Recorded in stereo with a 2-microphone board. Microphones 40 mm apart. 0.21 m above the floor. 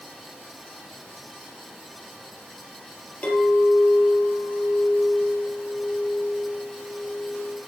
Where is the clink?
45° left (ahead or behind), 4 m.